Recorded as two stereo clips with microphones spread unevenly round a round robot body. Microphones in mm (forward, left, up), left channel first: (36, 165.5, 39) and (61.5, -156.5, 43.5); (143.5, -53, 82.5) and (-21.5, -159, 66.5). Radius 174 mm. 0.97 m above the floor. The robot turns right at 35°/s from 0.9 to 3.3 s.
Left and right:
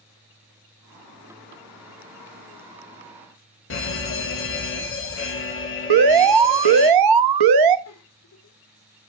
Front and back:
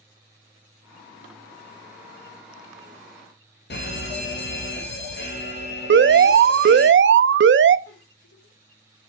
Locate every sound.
3.7 s a fire alarm: 55° left, 2 m
5.9 s an alarm: 120° right, 0.7 m
7.9 s a giggle: 50° left, 1.8 m